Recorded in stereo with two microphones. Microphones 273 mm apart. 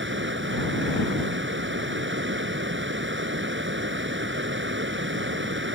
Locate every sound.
0.0 s running water: 45° right (ahead or behind)